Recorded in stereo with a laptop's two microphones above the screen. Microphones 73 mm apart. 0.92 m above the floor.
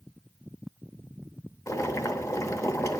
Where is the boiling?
50° left (ahead or behind), 0.6 m.